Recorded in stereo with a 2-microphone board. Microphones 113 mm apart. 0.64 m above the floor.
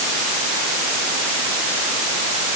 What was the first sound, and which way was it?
Only background noise.